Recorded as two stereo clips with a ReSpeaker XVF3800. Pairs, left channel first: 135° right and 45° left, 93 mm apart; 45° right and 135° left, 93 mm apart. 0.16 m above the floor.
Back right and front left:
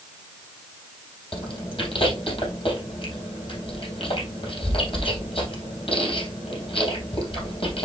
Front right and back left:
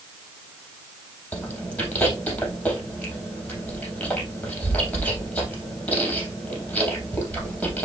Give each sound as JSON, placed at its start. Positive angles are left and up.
{"t": 1.3, "sound": "chewing", "azimuth_deg": -120, "distance_m": 3.5}